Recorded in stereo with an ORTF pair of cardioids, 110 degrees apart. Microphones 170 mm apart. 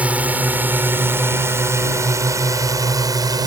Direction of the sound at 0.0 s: 10° right.